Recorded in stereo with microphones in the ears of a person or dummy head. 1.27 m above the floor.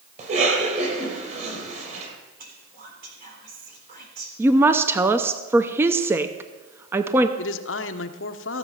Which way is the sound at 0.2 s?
45° right (ahead or behind).